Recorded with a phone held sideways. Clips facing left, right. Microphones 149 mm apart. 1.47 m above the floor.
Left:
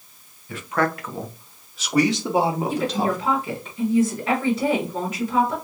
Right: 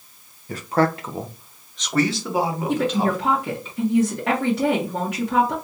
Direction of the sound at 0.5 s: 40° right (ahead or behind).